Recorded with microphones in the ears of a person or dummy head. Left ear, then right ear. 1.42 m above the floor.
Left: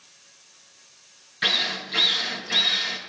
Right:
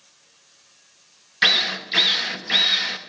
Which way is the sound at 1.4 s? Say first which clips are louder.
Right 5 dB; 40° right (ahead or behind).